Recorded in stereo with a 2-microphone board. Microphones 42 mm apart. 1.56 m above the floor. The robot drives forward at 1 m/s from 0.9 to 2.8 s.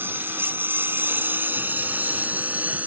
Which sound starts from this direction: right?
A lawn mower, at 0.0 s.